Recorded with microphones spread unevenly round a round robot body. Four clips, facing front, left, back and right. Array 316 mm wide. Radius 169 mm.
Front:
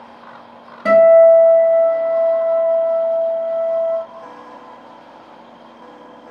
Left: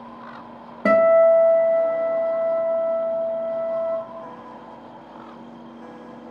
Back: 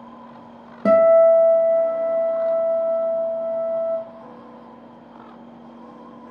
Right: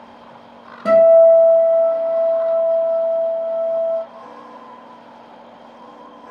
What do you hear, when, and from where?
0.8 s a guitar: 145° left, 0.5 m